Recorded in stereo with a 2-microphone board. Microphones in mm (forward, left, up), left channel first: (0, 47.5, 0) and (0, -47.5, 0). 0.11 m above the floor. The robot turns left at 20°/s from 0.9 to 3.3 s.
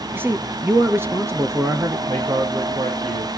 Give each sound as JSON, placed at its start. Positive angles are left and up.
{"t": 0.1, "sound": "a man speaking", "side_deg": -25, "distance_m": 1.4}
{"t": 2.1, "sound": "a man speaking", "side_deg": -65, "distance_m": 5.0}